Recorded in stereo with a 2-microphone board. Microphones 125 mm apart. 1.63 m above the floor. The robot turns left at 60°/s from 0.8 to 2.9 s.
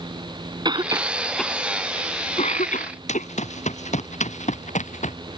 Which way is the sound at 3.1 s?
65° left (ahead or behind).